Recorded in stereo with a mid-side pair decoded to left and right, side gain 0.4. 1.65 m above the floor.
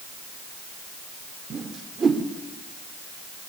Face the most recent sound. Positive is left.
turn(degrees=-40)